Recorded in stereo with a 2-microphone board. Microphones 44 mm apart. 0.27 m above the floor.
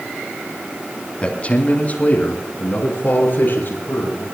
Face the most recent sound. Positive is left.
turn(degrees=45)  # may be behind; listen again after turning